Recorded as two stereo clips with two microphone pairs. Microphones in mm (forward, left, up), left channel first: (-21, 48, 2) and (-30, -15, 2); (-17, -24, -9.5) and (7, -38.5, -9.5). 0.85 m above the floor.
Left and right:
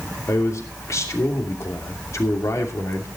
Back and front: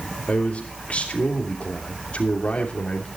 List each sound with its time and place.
0.3 s a man speaking: 115° left, 2.5 m